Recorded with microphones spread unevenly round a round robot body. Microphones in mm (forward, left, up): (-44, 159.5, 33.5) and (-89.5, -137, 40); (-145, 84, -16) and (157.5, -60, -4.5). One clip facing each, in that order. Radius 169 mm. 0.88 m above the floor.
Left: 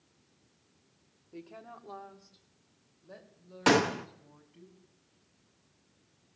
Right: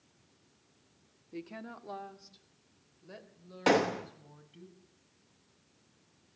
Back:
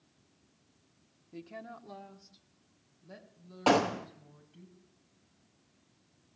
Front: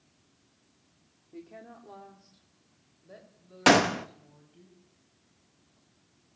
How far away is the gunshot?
About 1.1 m.